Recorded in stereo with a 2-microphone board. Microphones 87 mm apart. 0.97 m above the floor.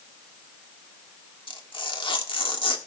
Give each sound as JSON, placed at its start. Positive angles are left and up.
{"t": 1.5, "sound": "tearing paper", "side_deg": 90, "distance_m": 1.5}